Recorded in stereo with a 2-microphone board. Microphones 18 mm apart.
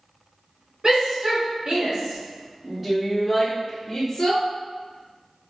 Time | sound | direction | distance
0.8 | a shout | 55° right (ahead or behind) | 2.0 m